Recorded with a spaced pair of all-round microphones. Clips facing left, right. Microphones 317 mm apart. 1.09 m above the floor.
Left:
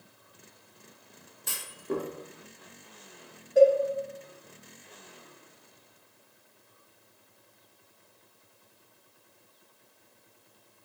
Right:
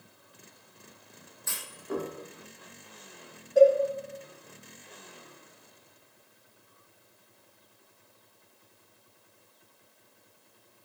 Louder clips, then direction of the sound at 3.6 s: Even; centre (ahead or behind).